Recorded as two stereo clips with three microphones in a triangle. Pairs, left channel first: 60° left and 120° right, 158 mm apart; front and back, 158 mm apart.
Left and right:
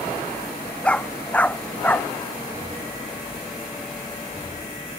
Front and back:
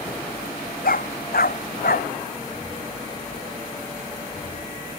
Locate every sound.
0.8 s a dog barking: 25° right; by 2.1 s 20° right